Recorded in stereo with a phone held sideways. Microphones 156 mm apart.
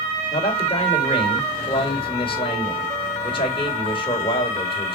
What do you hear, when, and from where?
0.3 s a man speaking: 30° left (ahead or behind), 3.5 m